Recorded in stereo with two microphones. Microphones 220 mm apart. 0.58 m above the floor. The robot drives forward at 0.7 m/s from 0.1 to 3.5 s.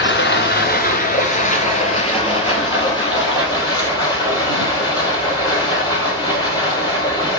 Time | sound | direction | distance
0.0 | running water | 60° left (ahead or behind) | 1.2 m